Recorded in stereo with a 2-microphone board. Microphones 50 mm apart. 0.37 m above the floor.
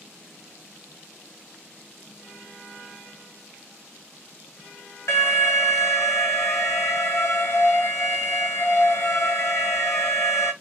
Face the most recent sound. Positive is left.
turn(degrees=65)  # may be behind; listen again after turning